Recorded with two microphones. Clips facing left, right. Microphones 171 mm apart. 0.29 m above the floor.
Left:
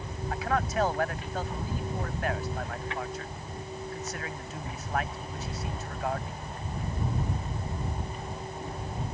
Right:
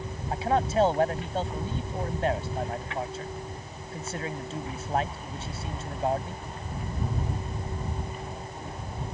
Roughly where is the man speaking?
Right.